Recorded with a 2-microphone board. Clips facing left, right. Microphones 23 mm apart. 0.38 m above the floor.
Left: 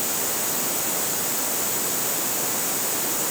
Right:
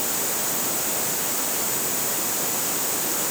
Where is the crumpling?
No crumpling in this recording.